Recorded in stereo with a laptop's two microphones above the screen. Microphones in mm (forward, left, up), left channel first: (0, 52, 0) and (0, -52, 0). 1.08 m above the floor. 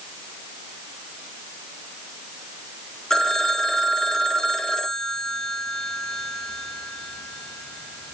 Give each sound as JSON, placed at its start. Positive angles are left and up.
{"t": 3.1, "sound": "a phone ringing", "side_deg": 5, "distance_m": 1.3}